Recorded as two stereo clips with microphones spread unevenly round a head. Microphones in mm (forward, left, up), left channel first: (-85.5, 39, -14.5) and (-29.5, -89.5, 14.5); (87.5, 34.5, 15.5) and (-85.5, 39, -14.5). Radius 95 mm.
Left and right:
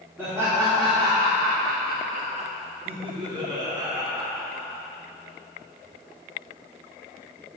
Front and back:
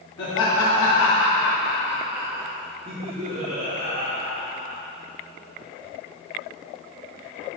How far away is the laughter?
About 1.5 m.